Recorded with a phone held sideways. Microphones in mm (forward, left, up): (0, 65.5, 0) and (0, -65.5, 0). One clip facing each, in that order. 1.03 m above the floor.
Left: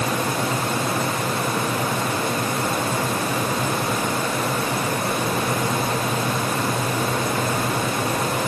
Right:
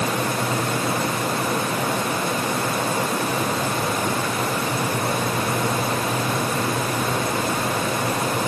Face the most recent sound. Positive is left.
No sound to turn to.